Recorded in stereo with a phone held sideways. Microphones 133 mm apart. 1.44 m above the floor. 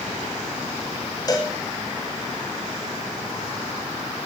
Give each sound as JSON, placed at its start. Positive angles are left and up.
{"t": 1.3, "sound": "a cowbell", "side_deg": 30, "distance_m": 2.0}